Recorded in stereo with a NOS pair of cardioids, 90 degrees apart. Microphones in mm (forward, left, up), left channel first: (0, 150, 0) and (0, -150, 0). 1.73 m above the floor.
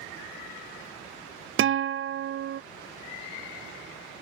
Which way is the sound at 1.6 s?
40° right.